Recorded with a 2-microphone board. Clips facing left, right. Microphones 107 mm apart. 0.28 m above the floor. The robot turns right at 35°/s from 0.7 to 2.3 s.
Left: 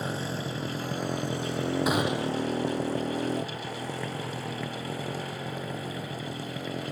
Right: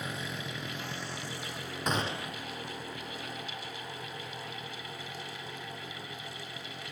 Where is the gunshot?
10° left (ahead or behind); by 2.5 s 25° left (ahead or behind).